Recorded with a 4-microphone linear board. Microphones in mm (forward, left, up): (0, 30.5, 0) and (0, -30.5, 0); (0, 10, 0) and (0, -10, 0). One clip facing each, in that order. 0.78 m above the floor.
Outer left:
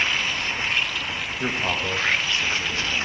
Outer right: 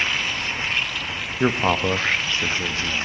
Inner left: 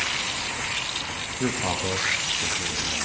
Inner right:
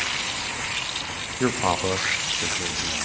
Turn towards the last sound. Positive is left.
turn(degrees=-20)  # may be behind; listen again after turning